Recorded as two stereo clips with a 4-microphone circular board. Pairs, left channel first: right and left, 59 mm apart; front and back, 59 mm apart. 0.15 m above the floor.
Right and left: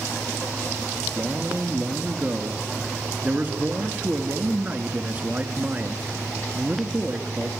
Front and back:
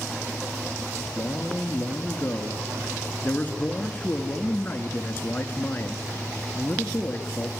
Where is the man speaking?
45° left, 2 m.